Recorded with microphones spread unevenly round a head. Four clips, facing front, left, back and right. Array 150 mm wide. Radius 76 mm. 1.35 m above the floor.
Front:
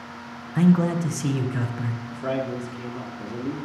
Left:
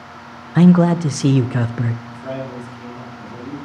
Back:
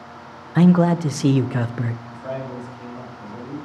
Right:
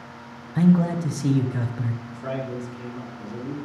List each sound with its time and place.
0.6 s a man speaking: 100° left, 0.6 m
2.1 s a man speaking: 5° right, 3 m